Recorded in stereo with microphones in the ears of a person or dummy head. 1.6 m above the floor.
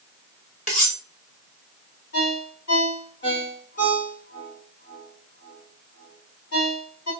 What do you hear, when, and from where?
0.7 s cutlery clinking: 35° left (ahead or behind), 1.3 m
2.1 s a ringtone: 50° left (ahead or behind), 2 m